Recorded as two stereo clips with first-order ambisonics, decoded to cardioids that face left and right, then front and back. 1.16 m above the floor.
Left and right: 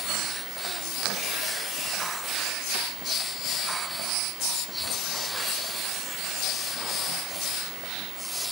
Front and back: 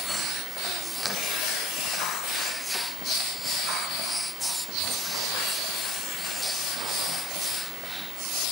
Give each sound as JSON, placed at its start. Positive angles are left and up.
{"t": 1.1, "sound": "tearing paper", "azimuth_deg": 10, "distance_m": 5.0}